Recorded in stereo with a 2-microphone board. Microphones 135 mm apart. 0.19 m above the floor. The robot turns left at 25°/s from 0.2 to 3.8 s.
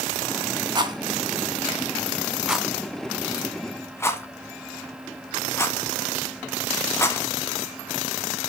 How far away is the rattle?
About 1.0 m.